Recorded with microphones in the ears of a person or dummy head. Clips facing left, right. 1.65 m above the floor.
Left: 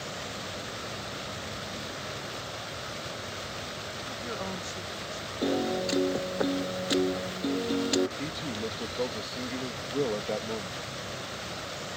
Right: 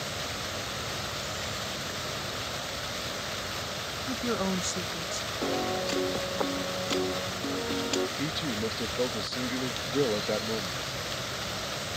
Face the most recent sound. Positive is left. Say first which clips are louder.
# right 3 dB
turn(degrees=-10)  # may be behind; listen again after turning